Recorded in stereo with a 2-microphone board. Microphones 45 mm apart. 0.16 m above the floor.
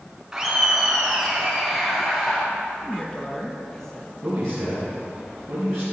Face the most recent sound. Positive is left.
turn(degrees=-70)  # may be behind; listen again after turning